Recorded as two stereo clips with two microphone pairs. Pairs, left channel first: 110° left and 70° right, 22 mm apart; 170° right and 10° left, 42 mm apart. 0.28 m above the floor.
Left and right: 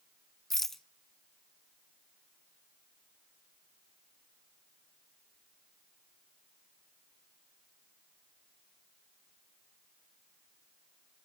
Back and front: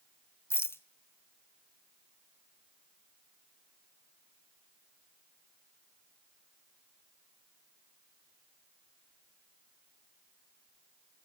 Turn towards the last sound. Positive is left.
turn(degrees=-175)